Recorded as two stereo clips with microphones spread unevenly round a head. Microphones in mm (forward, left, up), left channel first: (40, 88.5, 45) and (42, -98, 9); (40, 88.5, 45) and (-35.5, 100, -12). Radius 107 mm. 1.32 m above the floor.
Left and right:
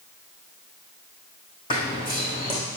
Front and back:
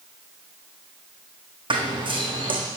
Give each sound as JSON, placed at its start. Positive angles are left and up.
{"t": 1.7, "sound": "running footsteps", "azimuth_deg": 155, "distance_m": 5.5}